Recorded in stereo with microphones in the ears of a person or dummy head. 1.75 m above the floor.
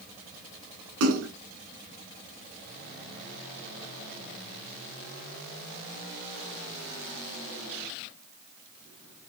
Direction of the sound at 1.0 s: 70° right (ahead or behind).